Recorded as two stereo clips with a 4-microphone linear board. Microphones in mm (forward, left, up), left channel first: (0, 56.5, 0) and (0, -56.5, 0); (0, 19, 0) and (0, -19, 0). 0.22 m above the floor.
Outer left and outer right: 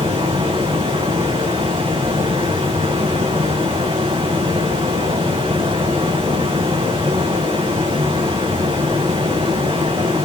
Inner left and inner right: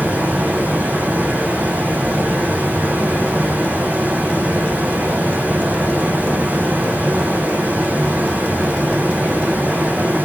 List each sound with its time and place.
0.0 s running water: 50° right (ahead or behind), 4 m